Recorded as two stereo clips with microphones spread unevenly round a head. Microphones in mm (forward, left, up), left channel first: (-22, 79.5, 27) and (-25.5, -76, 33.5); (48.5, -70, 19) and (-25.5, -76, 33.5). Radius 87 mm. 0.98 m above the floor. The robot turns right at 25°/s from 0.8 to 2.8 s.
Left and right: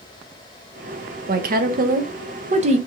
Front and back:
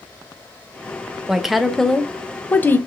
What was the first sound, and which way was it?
A woman speaking, 85° right.